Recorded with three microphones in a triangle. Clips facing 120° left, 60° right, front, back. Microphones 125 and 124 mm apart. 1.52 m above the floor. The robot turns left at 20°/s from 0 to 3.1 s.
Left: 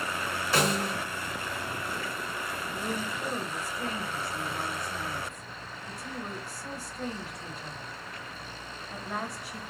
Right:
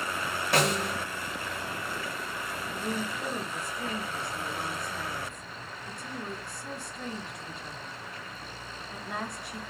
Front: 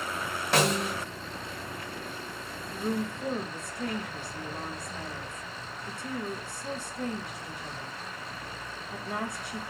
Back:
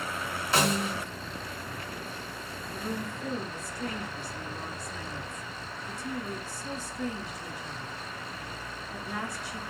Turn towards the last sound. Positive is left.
turn(degrees=30)